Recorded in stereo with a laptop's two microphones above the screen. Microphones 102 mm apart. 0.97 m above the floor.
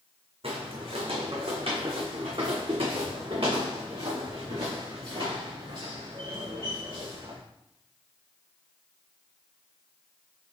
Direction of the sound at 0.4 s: 65° right (ahead or behind).